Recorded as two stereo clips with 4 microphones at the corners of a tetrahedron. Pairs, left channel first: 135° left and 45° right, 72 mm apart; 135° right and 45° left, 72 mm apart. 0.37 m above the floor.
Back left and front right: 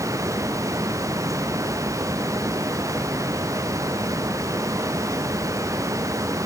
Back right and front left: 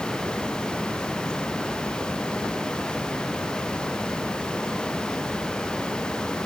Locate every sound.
Only background noise.